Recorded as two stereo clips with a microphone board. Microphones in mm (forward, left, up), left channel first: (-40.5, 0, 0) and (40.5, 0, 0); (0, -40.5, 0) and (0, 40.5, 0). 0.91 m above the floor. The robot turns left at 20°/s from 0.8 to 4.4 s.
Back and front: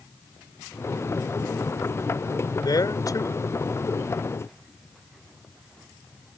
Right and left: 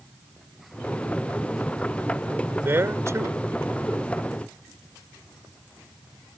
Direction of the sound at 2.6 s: 150° left.